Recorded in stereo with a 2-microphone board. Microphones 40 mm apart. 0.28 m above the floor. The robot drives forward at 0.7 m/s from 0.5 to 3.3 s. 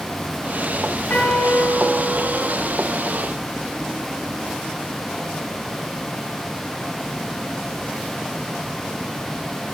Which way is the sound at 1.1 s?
60° left (ahead or behind).